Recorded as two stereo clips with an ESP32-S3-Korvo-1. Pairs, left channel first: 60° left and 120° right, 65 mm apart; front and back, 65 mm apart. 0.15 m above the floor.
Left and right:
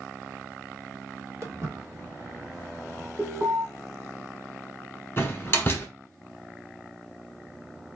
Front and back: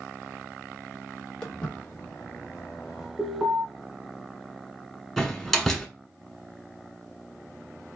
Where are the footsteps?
80° right, 2 m; by 3.1 s 25° right, 1.6 m.